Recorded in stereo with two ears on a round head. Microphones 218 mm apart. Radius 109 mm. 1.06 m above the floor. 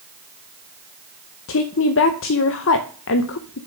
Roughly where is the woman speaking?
Left.